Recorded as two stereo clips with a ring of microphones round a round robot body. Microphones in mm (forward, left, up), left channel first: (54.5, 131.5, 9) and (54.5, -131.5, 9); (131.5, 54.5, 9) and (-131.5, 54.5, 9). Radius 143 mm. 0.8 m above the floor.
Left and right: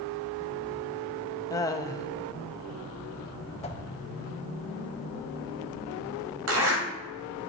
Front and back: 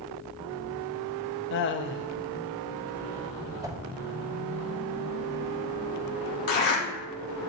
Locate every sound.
1.5 s laughter: 20° left, 0.6 m
3.6 s a whoosh: 120° left, 0.7 m
6.5 s a zipper: 60° right, 1.9 m